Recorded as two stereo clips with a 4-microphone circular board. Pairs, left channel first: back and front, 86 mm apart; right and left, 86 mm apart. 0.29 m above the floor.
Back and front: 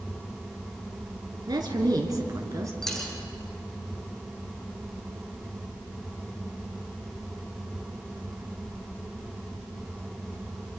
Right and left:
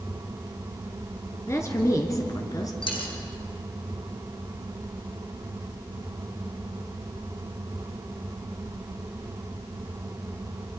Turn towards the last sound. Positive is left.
turn(degrees=-95)